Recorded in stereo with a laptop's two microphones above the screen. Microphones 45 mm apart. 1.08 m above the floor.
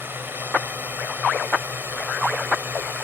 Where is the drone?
45° right (ahead or behind); by 3.0 s 50° right (ahead or behind).